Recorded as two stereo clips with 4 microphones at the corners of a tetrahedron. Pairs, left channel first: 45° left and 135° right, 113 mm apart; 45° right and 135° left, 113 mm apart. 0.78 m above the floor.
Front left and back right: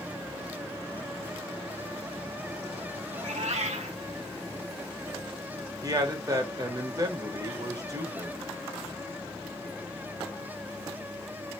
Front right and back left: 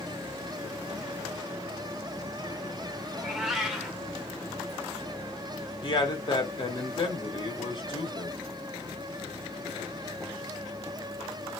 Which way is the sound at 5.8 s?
80° right.